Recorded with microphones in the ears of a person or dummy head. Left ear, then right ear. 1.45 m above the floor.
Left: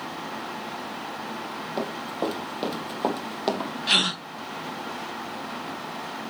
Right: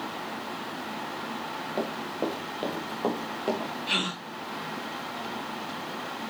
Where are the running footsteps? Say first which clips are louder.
Left 2 dB; 15° left (ahead or behind), 3 m; by 3.7 s 45° left (ahead or behind), 3 m.